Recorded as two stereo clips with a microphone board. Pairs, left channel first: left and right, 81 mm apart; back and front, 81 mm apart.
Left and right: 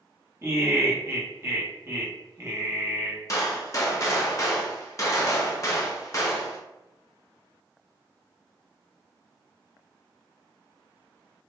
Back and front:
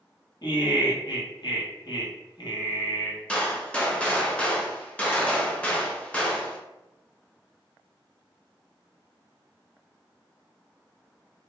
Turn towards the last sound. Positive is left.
turn(degrees=115)